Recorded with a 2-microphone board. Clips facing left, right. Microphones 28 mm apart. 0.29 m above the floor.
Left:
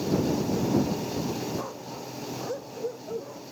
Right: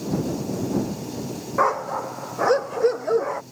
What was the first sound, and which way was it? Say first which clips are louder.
A dog barking: right 14 dB; 65° right (ahead or behind).